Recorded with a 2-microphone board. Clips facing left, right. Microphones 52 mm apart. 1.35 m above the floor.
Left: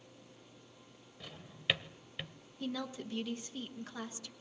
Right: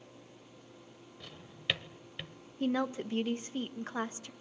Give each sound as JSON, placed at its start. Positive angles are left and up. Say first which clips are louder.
{"t": 1.2, "sound": "a drawer", "louder": "left 1 dB", "side_deg": 5, "distance_m": 1.3}
{"t": 2.6, "sound": "a woman speaking", "louder": "right 8 dB", "side_deg": -35, "distance_m": 1.2}